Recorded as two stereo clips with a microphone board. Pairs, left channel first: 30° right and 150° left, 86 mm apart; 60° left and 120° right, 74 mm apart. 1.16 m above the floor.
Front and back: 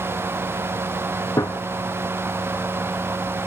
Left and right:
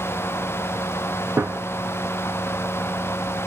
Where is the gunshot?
70° right, 0.6 m.